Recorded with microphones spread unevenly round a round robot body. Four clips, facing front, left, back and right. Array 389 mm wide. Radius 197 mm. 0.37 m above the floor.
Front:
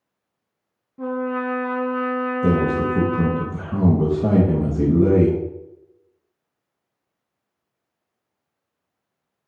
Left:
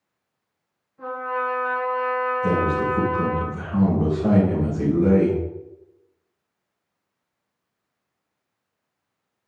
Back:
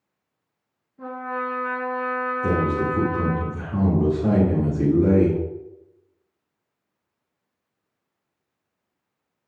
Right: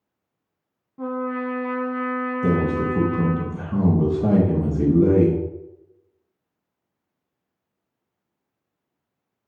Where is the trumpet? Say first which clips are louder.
Even, front 5 dB; 45° right, 1.8 m.